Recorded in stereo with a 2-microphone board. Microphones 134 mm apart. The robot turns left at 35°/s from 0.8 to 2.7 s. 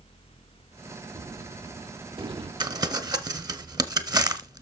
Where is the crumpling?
35° right (ahead or behind), 0.9 m; by 4.6 s 30° right (ahead or behind), 0.9 m.